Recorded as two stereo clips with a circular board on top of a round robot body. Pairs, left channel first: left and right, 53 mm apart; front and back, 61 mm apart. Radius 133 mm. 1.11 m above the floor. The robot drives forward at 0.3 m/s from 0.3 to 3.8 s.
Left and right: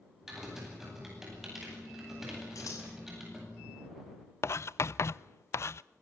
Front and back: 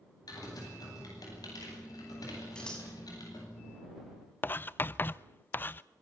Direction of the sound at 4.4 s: 55° left.